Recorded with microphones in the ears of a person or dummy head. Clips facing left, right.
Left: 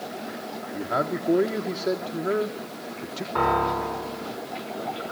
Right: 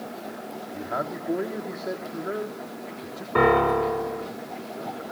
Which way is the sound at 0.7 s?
45° left (ahead or behind).